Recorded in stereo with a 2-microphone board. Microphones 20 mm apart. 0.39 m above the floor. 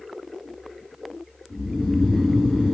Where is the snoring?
65° left (ahead or behind), 1.7 m.